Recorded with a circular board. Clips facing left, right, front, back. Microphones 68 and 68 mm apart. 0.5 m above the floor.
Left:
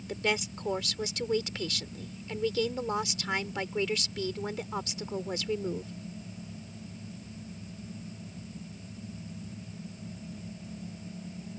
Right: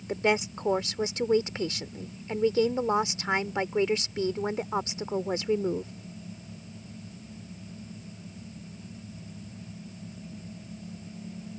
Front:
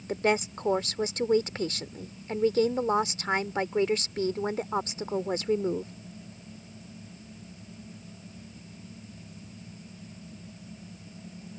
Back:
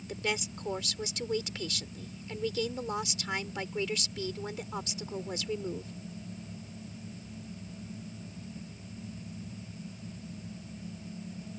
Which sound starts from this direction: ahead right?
A woman speaking, at 0.1 s.